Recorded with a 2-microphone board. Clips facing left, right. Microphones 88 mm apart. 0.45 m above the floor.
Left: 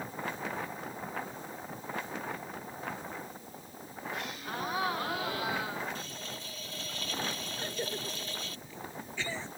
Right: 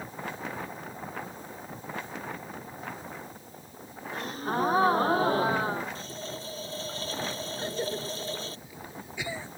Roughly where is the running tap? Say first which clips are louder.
Right 4 dB; right.